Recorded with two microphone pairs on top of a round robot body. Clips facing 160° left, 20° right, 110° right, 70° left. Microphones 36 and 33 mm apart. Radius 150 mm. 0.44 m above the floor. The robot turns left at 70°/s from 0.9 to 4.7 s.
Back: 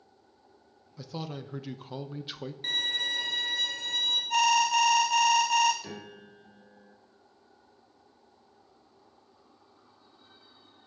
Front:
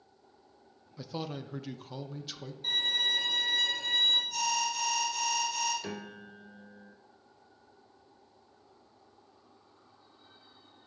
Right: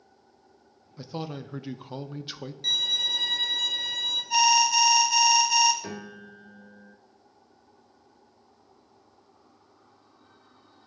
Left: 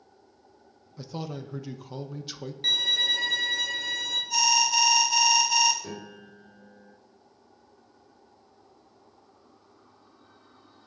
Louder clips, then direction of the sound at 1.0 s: Even, right 1 dB; 50° right.